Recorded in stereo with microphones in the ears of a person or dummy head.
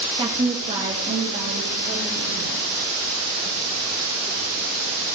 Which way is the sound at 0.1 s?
25° right (ahead or behind).